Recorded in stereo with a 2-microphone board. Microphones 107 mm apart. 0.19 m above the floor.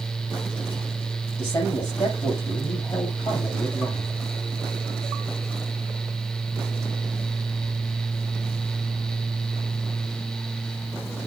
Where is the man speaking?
40° left (ahead or behind), 5.5 m.